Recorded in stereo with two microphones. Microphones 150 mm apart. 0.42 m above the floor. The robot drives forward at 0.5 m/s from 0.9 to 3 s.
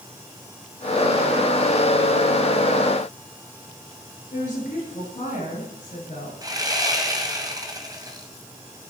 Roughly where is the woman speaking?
Left.